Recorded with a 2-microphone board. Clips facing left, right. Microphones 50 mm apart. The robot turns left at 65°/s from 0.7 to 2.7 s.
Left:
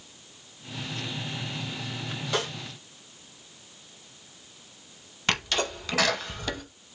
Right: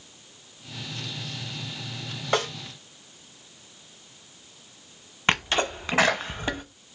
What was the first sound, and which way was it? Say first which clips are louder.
A snare drum: right 4 dB; 50° right (ahead or behind).